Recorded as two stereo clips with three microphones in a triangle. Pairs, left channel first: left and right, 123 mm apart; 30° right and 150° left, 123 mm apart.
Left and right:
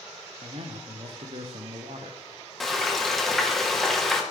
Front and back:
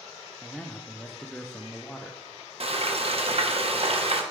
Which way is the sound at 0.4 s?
115° right.